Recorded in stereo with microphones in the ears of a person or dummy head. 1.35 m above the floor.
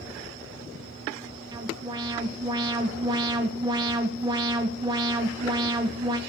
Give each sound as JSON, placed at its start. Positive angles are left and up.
{"t": 1.5, "sound": "an alarm", "side_deg": -20, "distance_m": 2.0}